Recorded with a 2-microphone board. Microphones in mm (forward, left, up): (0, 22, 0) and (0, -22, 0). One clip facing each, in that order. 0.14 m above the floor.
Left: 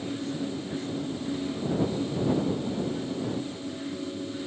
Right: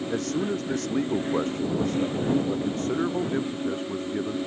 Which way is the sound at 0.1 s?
70° right (ahead or behind).